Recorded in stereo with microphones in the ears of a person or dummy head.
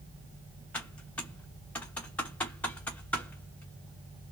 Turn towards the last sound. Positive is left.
turn(degrees=5)  # may be behind; listen again after turning